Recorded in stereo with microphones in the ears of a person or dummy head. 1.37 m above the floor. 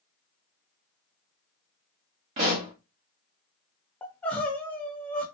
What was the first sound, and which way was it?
A pop, 25° right (ahead or behind).